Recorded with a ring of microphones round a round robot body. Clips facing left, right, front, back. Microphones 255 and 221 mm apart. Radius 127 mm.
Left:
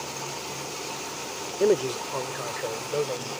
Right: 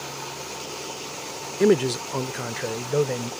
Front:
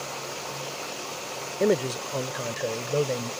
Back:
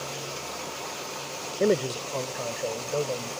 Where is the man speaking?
90° right; by 3.3 s 65° right.